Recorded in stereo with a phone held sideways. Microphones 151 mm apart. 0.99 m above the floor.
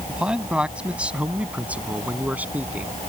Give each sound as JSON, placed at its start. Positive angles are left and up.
{"t": 0.1, "sound": "a man speaking", "side_deg": -5}